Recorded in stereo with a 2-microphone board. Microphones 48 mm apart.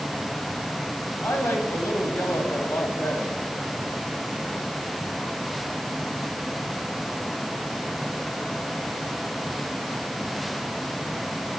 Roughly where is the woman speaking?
Left.